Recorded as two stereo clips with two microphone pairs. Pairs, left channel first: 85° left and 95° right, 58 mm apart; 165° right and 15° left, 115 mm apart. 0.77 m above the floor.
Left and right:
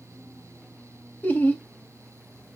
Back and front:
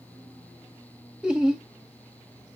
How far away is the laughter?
About 0.9 m.